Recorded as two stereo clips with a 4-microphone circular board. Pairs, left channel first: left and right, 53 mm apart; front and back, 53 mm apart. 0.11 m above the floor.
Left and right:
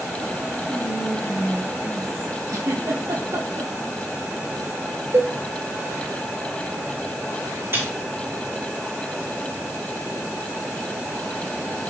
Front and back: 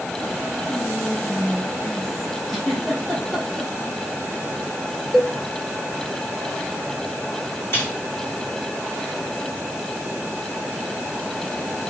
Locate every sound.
0.7 s whispering: 80° left, 2 m
2.5 s a giggle: 85° right, 2.5 m
5.1 s a cowbell: 90° right, 0.9 m
7.7 s a snare drum: 45° right, 3.5 m